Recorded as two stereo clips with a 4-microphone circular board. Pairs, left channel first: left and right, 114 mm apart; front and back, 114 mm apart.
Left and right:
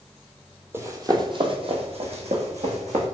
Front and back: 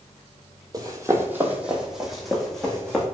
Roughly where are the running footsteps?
Behind right.